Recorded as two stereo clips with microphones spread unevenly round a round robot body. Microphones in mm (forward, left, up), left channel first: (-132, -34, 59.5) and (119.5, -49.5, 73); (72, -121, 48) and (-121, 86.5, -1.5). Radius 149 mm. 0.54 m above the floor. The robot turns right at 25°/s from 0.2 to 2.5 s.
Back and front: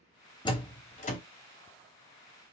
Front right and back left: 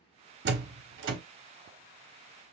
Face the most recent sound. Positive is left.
turn(degrees=160)